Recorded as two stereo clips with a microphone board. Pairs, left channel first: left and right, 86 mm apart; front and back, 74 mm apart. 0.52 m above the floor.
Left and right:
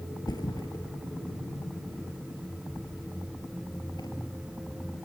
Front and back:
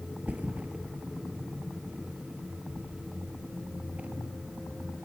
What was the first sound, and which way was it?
A thud, 110° left.